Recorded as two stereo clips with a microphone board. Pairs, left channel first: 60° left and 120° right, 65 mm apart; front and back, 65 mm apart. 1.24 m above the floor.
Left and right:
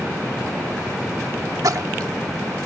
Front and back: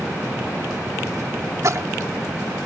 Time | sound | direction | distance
1.6 | a splash | 145° right | ?